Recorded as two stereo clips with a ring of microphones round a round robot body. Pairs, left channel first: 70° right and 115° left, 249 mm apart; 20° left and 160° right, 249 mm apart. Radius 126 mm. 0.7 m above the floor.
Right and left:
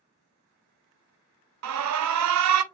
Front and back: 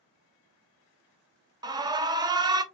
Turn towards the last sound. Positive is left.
turn(degrees=130)